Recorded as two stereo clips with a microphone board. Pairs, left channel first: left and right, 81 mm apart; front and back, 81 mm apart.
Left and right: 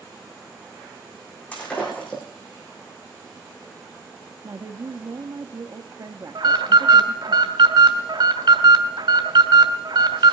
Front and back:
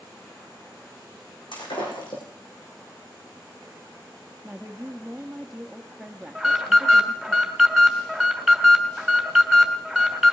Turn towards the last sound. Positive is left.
turn(degrees=-90)